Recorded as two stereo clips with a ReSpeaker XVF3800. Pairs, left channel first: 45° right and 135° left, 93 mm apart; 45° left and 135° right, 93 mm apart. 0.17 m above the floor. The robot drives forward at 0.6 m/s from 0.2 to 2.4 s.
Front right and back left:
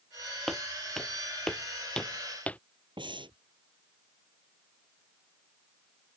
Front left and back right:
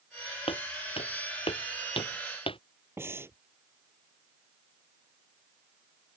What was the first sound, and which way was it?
Footsteps, 45° left.